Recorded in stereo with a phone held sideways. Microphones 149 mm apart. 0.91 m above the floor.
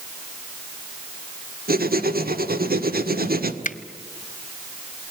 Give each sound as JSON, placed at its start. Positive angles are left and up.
{"t": 1.7, "sound": "writing", "side_deg": -80, "distance_m": 1.5}
{"t": 3.6, "sound": "a finger snap", "side_deg": 55, "distance_m": 0.9}